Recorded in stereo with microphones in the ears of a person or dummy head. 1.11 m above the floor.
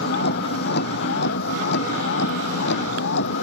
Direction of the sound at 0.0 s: 55° left (ahead or behind).